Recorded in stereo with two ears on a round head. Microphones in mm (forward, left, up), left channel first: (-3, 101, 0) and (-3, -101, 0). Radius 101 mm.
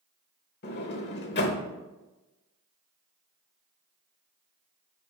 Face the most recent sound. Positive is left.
turn(degrees=50)  # may be behind; listen again after turning